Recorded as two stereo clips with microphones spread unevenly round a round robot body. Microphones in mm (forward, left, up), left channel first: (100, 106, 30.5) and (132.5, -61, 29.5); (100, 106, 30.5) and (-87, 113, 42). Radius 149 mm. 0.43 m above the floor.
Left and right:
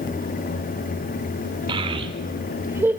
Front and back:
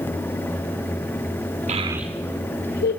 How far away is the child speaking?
About 1.0 m.